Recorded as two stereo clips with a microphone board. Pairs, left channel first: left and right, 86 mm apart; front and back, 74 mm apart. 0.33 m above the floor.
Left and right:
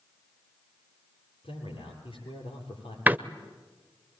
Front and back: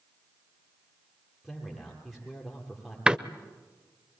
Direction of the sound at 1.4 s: 95° left.